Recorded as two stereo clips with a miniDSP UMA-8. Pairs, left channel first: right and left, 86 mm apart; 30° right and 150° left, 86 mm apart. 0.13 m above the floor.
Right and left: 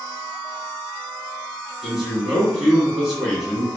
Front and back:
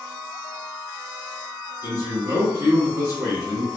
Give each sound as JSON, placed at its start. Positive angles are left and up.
{"t": 1.8, "sound": "a man speaking", "azimuth_deg": 170, "distance_m": 1.9}